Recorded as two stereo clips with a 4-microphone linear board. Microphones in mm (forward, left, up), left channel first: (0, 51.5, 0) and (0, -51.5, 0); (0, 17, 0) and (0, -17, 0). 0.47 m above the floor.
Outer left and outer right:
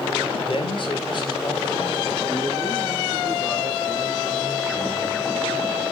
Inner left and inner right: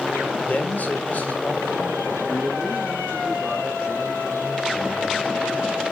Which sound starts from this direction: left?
A man speaking, at 0.5 s.